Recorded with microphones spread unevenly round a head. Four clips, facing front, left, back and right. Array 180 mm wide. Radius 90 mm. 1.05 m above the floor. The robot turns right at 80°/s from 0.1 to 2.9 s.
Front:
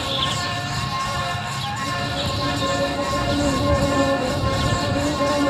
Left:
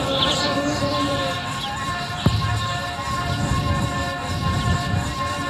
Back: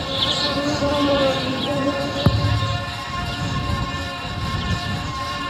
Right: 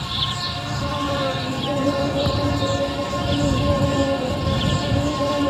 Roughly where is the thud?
Behind left.